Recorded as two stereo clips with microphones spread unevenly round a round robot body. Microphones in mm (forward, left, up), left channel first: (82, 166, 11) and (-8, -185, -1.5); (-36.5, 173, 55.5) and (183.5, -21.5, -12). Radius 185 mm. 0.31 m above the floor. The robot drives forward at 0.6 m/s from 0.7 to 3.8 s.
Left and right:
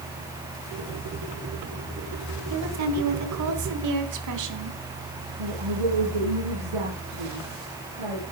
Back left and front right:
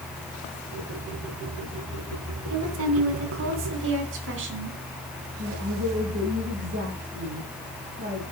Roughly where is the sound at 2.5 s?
Ahead right.